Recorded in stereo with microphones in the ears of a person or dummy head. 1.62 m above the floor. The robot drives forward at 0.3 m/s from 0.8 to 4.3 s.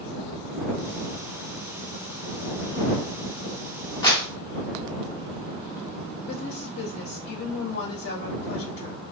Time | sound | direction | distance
4.0 | a clap | 15° left (ahead or behind) | 0.7 m
6.3 | a woman speaking | 65° left (ahead or behind) | 1.0 m